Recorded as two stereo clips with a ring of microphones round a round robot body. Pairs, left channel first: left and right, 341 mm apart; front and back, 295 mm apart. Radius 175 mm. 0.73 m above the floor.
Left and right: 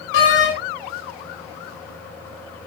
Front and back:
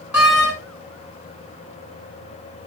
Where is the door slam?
95° left, 6 m.